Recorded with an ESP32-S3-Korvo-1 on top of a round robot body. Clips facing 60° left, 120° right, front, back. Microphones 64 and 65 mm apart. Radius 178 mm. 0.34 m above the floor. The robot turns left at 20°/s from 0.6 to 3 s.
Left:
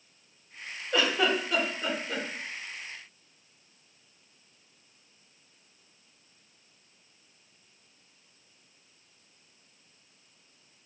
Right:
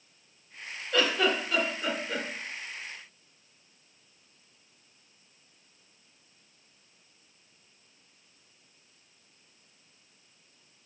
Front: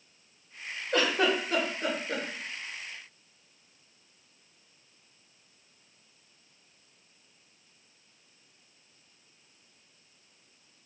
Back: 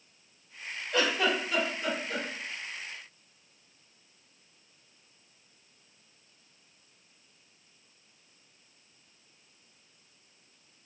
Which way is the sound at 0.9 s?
5° right.